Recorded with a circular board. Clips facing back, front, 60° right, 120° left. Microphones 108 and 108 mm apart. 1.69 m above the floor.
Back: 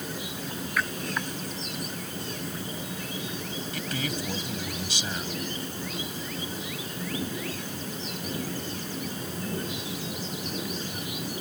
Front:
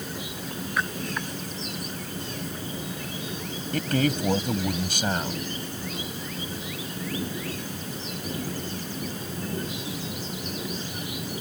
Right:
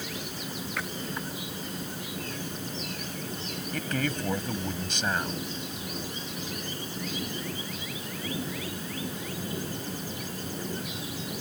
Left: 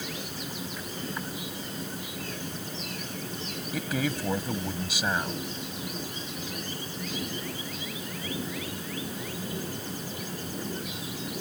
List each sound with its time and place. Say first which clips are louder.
0.8 s a splash: front 1 dB, right 4 dB; 65° right
3.7 s a man speaking: front 10 dB, left 1 dB; 40° left